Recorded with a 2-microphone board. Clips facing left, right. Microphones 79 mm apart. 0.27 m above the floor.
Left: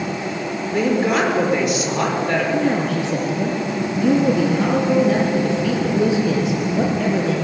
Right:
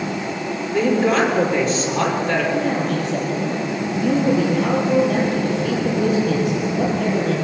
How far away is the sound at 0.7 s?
About 6.5 m.